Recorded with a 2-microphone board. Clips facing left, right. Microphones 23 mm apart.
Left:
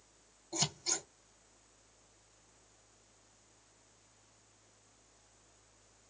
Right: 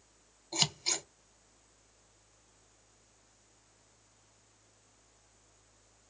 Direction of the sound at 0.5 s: 55° right (ahead or behind).